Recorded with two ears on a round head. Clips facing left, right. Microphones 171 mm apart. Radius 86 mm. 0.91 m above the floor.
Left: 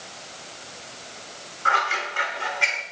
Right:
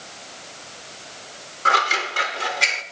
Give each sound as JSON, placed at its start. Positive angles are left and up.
{"t": 1.6, "sound": "scissors", "side_deg": -45, "distance_m": 0.9}